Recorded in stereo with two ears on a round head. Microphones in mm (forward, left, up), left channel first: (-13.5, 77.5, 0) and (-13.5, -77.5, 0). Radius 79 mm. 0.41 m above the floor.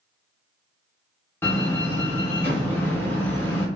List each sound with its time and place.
1.4 s a door slam: 10° left (ahead or behind), 0.6 m